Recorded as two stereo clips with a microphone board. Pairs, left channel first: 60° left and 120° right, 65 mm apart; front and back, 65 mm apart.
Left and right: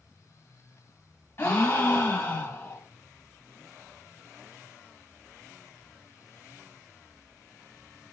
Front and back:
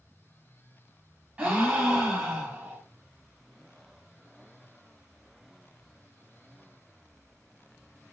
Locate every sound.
1.4 s a gasp: 115° left, 0.8 m